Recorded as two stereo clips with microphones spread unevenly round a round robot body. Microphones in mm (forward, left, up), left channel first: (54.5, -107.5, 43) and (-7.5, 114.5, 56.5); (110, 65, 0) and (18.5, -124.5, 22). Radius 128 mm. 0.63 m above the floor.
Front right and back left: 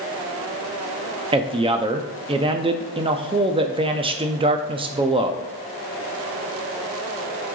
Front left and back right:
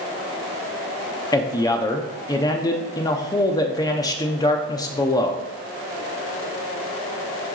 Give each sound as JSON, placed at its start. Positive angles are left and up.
{"t": 1.3, "sound": "a man speaking", "azimuth_deg": 65, "distance_m": 0.6}